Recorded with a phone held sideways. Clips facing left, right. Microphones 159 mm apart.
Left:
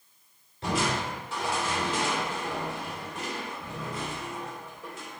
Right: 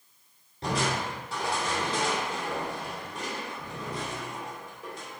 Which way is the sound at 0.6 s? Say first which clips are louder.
Left 1 dB; 35° right (ahead or behind).